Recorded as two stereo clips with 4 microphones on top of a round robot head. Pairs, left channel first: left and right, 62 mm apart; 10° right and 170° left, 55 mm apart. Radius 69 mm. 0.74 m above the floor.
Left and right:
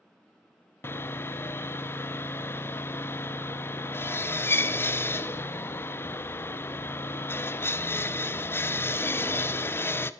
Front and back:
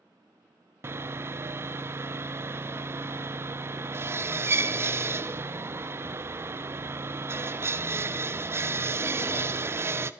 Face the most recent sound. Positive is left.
turn(degrees=135)